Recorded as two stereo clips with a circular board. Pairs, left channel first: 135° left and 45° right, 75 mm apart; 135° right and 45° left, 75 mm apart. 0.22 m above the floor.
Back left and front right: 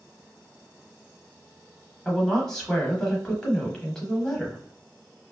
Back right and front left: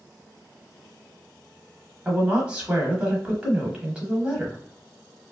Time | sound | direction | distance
2.0 | a woman speaking | 70° left | 0.9 m